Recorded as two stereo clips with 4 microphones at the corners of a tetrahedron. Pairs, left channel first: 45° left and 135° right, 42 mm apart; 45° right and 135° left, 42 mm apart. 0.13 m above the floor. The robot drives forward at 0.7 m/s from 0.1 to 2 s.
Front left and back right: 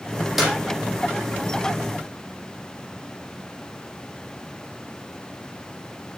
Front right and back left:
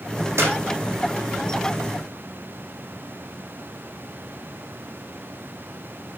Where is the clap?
140° left, 5 m.